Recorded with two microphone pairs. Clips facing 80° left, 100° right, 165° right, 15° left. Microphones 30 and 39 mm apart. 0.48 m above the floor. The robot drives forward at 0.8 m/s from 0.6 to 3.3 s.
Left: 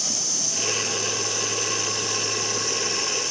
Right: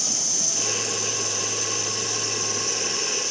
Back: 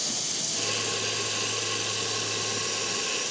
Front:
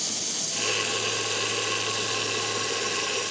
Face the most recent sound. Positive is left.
turn(degrees=145)